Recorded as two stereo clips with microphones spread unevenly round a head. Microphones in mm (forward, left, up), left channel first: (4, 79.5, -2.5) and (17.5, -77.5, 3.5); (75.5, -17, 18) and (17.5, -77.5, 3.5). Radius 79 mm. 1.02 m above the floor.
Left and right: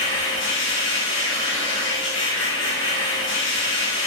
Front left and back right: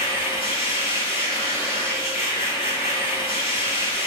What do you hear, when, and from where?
0.0 s a machine running: 90° left, 5 m